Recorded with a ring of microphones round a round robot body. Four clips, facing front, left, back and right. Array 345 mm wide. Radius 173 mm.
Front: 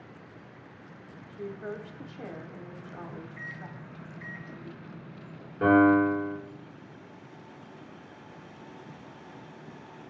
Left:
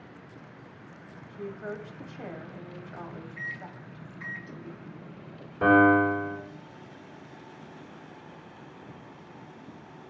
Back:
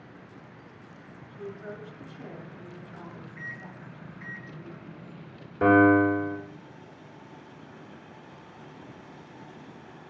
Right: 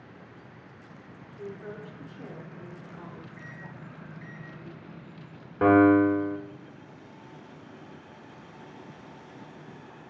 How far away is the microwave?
About 0.6 m.